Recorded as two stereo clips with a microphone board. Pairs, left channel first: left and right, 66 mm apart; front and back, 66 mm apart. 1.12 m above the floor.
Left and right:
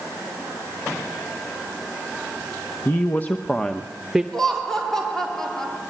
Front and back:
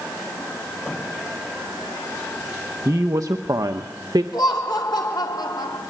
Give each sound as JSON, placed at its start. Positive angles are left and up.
{"t": 2.9, "sound": "a woman speaking", "azimuth_deg": 140, "distance_m": 1.2}
{"t": 4.3, "sound": "laughter", "azimuth_deg": 5, "distance_m": 3.5}